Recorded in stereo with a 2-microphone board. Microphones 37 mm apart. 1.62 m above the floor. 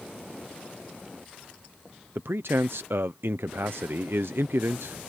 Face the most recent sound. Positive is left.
turn(degrees=-85)